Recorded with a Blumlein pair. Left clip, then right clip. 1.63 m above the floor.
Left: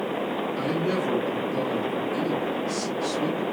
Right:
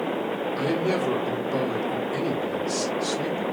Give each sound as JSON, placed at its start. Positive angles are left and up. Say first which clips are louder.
{"t": 0.6, "sound": "a man speaking", "louder": "right 3 dB", "azimuth_deg": -20, "distance_m": 2.0}